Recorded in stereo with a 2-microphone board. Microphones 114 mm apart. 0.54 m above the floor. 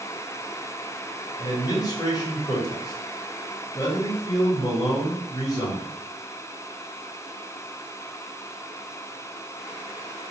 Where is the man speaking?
35° left (ahead or behind), 1.2 m.